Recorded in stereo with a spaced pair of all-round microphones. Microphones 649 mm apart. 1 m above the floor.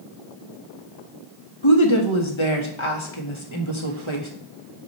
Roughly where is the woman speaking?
Left.